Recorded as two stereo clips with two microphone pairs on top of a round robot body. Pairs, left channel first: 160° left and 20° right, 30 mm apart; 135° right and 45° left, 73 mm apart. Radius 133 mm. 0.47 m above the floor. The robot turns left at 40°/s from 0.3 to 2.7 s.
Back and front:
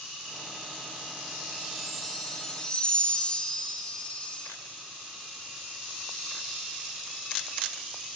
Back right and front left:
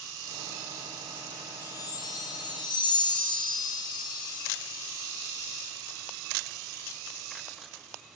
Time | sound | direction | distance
1.6 | a chime | 90° right | 0.9 m